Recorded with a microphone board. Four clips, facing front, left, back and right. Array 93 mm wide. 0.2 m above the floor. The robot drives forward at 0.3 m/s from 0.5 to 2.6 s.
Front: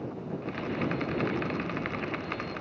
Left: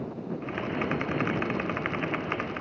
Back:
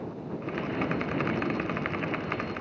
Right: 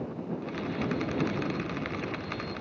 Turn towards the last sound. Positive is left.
No sound to turn to.